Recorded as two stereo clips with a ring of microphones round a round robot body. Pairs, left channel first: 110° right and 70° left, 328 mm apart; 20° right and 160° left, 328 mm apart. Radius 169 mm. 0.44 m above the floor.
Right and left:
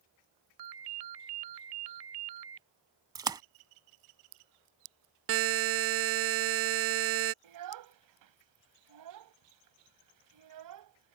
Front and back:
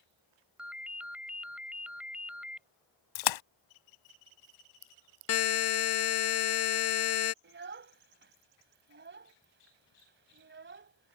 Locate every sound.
0.6 s a ringtone: 70° left
3.1 s a splash: 10° right
5.3 s a buzzer: 20° left
7.4 s a child speaking: 100° left